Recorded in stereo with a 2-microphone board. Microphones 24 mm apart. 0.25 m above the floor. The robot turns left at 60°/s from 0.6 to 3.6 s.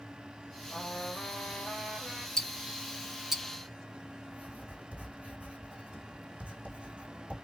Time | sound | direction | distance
0.7 | a trumpet | 125° left | 2.5 m
2.4 | ticking | 30° left (ahead or behind) | 0.7 m
4.3 | writing | 70° right (ahead or behind) | 2.5 m